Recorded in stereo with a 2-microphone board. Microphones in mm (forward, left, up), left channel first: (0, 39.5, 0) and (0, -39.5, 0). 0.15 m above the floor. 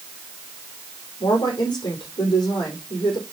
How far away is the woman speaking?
About 5.5 m.